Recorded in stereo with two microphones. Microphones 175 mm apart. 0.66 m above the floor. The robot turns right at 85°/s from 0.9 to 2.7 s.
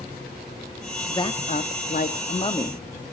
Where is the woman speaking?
20° left, 0.8 m; by 2.8 s 160° left, 0.8 m.